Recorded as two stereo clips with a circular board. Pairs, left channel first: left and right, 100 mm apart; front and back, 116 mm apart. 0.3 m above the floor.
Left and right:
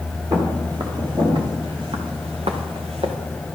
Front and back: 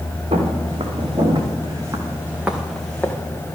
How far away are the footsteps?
About 4 m.